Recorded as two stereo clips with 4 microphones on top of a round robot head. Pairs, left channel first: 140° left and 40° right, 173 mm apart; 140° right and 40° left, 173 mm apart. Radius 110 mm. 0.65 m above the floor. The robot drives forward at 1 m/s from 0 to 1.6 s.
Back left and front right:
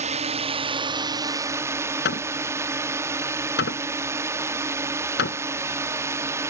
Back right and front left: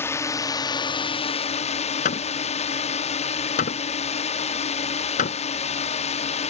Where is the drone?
70° right; by 6.5 s 110° right.